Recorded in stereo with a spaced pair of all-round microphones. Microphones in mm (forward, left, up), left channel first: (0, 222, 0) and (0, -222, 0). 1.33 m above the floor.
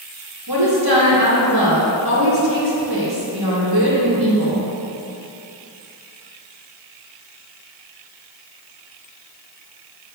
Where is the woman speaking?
60° right (ahead or behind), 2.0 m.